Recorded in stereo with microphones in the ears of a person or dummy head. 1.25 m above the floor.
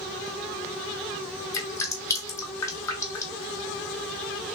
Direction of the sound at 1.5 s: 15° left (ahead or behind).